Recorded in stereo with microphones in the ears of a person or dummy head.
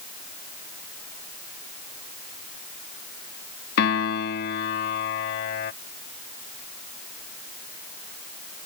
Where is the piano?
55° left (ahead or behind).